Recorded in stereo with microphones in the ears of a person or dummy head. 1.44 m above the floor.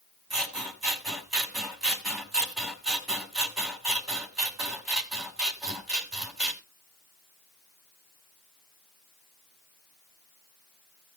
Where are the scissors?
Centre (ahead or behind), 1.8 m.